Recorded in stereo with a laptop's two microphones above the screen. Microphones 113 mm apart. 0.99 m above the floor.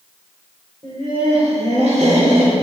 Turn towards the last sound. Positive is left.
turn(degrees=-80)